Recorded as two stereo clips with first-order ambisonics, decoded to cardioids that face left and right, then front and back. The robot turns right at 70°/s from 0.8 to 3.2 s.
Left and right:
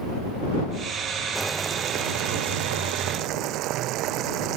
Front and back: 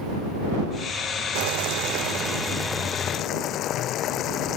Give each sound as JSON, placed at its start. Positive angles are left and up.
{"t": 1.4, "sound": "boiling", "azimuth_deg": 180}